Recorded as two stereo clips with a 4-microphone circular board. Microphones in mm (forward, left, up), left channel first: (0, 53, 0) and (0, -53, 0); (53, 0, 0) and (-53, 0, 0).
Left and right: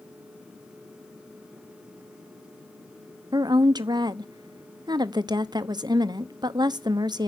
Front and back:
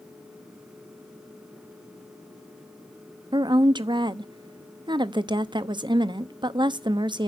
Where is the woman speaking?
140° right, 0.9 m.